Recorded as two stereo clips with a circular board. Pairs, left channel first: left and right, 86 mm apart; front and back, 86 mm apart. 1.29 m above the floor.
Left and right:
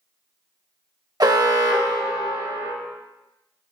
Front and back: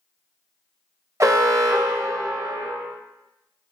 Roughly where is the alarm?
Behind right.